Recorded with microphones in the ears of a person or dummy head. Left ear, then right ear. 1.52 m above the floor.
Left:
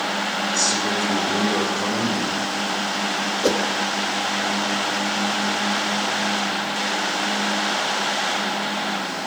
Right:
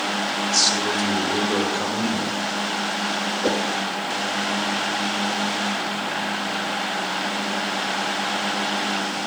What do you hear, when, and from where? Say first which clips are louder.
0.5 s a man speaking: right 3 dB; 45° right (ahead or behind), 6 m
3.4 s a whoosh: left 3 dB; 15° left (ahead or behind), 1.2 m